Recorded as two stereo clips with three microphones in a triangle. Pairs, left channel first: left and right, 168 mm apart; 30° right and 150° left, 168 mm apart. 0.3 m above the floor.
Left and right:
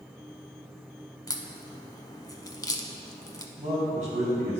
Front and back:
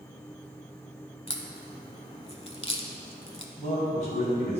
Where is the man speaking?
60° right, 2.5 m.